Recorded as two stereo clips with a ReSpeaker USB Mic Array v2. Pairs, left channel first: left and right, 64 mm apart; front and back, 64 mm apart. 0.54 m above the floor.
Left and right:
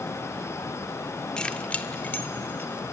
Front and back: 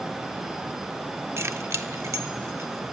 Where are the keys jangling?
160° left, 0.7 m; by 2.8 s 145° left, 2.5 m.